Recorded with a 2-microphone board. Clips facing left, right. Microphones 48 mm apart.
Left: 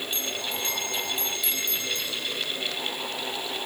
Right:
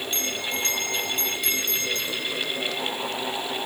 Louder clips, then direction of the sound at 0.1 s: Right 4 dB; 60° right (ahead or behind).